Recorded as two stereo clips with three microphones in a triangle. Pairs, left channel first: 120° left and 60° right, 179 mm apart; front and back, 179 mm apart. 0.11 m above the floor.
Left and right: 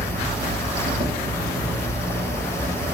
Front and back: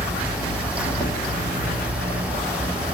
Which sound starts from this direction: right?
An insect, at 0.0 s.